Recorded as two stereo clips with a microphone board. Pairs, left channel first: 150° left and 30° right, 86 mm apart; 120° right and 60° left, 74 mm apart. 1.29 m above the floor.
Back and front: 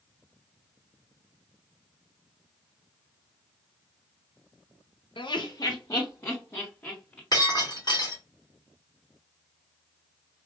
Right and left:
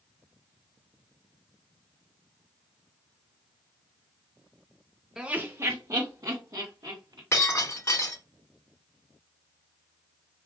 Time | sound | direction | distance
5.2 | laughter | 140° left | 0.6 m
7.3 | breaking glass | 170° right | 2.5 m